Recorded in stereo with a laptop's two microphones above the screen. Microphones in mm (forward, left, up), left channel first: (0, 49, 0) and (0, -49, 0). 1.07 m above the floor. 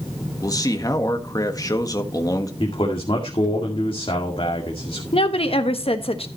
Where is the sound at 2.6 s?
65° left (ahead or behind), 2 m.